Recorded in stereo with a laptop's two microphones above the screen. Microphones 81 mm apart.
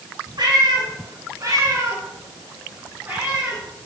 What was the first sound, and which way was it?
A cat meowing, 65° right (ahead or behind).